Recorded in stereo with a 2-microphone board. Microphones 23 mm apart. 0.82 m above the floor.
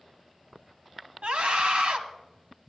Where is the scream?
70° right (ahead or behind), 1.3 m.